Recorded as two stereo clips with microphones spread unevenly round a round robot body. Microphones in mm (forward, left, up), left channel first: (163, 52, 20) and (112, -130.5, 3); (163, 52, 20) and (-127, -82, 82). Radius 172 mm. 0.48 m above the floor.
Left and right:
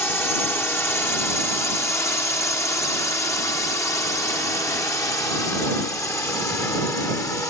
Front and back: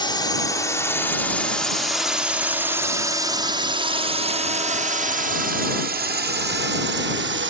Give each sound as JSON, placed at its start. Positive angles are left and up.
{"t": 0.0, "sound": "a drone", "azimuth_deg": 0}